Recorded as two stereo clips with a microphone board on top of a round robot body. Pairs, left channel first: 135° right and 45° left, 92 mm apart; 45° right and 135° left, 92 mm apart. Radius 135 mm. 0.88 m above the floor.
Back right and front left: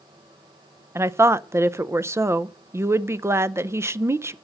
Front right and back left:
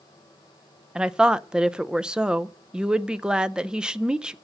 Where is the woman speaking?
65° left, 0.7 m.